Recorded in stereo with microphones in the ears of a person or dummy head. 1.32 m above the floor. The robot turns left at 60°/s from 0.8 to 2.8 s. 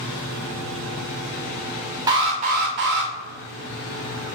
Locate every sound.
2.1 s an alarm: 20° right, 0.9 m; by 3.1 s 60° right, 0.9 m